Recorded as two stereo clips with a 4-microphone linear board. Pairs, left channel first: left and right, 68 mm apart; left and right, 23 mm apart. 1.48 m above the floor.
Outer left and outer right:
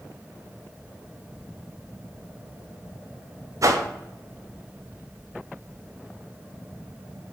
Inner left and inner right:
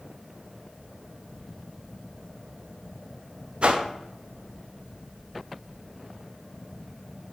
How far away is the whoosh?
About 0.5 m.